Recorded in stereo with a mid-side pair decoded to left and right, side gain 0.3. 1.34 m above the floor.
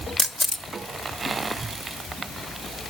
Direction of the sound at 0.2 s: 15° left.